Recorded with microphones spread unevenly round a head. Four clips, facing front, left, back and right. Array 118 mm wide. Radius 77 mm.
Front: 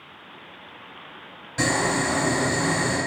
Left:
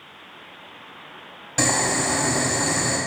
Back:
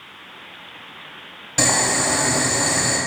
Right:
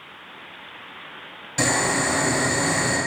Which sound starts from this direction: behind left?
Boiling, at 1.6 s.